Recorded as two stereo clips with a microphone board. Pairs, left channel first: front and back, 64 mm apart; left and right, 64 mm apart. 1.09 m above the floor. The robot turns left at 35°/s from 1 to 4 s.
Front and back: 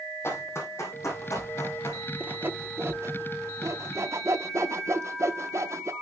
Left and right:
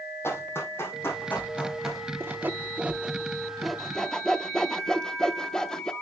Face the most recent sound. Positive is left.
turn(degrees=170)